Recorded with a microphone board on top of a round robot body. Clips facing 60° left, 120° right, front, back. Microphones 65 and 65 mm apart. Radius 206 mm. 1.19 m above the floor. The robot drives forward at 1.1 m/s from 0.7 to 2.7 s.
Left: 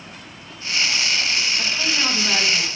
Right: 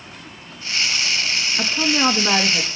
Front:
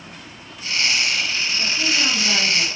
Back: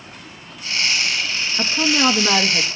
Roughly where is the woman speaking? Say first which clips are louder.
Right 4 dB, back 7 dB; behind.